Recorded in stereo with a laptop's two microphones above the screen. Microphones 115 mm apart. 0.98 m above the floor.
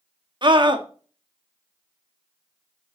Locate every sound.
0.4 s a scream: 45° right (ahead or behind), 1.6 m